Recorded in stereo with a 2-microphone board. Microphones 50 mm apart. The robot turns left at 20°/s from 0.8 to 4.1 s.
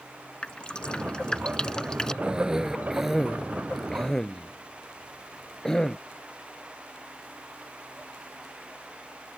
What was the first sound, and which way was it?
Dripping, 20° left (ahead or behind).